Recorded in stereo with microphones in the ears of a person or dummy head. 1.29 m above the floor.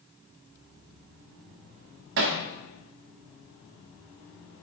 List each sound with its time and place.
2.2 s hammering: 45° right (ahead or behind), 1.0 m